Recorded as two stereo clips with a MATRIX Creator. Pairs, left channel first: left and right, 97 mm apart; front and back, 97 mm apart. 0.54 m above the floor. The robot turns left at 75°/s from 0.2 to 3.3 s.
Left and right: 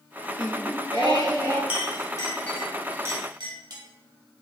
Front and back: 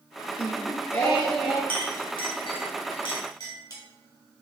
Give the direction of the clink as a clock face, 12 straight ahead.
10 o'clock.